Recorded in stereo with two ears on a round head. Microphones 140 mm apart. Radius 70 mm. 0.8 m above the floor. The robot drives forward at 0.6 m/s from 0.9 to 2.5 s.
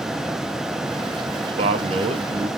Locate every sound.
1.6 s a man speaking: 40° right (ahead or behind), 1.2 m